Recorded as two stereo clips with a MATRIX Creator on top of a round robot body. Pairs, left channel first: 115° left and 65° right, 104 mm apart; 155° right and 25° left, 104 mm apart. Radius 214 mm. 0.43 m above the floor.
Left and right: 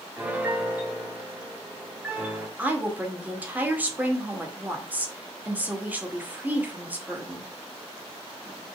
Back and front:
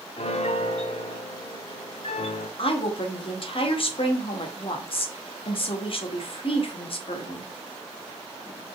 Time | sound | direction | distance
0.2 | a piano | 145° right | 1.3 m
2.6 | a woman speaking | 140° right | 2.5 m